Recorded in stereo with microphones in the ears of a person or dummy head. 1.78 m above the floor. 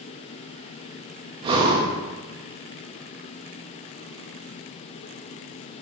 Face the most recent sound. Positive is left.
turn(degrees=-25)  # may be behind; listen again after turning